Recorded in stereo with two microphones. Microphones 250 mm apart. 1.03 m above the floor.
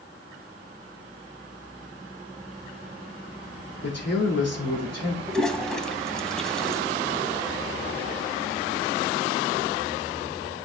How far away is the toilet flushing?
About 0.9 m.